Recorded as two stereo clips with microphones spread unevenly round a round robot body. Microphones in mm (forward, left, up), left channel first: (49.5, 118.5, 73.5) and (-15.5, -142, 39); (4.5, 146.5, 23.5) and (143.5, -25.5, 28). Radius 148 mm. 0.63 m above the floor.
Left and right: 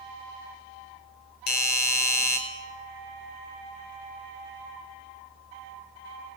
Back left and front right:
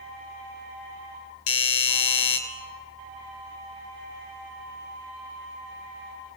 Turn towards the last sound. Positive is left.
turn(degrees=130)